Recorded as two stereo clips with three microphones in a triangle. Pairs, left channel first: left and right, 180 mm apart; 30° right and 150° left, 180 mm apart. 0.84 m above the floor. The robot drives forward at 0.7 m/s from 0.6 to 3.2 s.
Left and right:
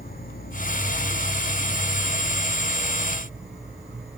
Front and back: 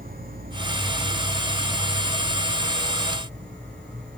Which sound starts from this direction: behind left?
An insect, at 0.0 s.